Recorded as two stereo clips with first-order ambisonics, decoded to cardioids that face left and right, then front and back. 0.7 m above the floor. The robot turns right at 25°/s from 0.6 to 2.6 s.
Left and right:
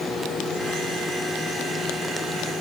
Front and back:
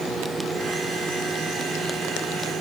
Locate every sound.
Only background noise.